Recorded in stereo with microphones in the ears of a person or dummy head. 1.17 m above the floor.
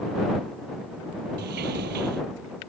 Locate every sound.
1.4 s a sliding door: 55° right (ahead or behind)